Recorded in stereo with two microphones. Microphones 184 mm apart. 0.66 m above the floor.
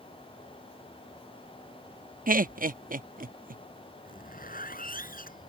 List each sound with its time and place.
2.3 s laughter: 45° right (ahead or behind)
4.0 s a zipper: 50° left (ahead or behind)